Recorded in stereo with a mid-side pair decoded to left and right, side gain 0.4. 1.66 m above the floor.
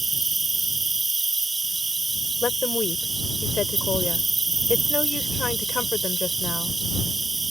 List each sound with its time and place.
0.0 s an insect: 30° right
2.4 s a woman speaking: 45° left